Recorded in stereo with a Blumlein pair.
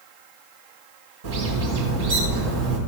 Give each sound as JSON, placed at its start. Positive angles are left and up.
{"t": 1.2, "sound": "a bird", "azimuth_deg": -60, "distance_m": 4.0}